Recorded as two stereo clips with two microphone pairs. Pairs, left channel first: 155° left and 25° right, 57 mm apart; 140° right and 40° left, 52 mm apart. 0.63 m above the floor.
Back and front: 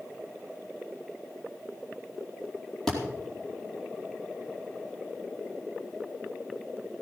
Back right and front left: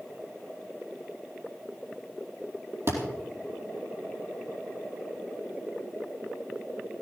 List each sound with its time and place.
2.9 s a thud: 75° left, 4.5 m